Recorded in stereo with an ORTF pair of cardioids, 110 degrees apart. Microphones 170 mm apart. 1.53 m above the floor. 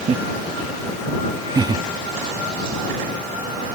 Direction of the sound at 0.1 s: 35° right.